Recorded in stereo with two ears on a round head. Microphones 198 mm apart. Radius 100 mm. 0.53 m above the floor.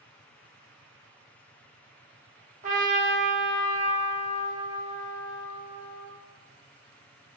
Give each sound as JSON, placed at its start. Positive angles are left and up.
{"t": 2.6, "sound": "a trumpet", "side_deg": -35, "distance_m": 0.8}